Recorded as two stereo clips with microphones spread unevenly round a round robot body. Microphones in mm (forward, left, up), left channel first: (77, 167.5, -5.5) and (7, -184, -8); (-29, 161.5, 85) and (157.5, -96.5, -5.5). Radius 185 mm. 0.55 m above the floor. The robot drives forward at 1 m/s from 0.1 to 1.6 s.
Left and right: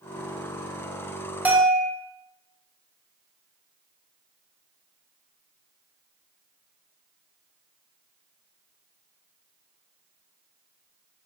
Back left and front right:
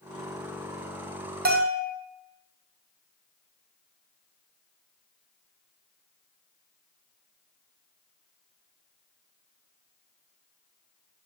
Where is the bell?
15° right, 1.9 m; by 1.9 s 20° right, 1.8 m.